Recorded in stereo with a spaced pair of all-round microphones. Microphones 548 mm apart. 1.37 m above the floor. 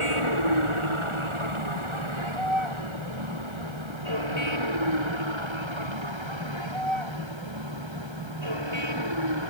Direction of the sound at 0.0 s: 60° right (ahead or behind).